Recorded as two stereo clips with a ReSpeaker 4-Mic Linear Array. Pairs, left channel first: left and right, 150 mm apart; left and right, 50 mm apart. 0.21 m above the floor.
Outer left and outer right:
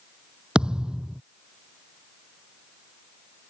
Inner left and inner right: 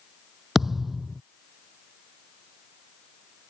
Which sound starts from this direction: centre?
A thud, at 0.6 s.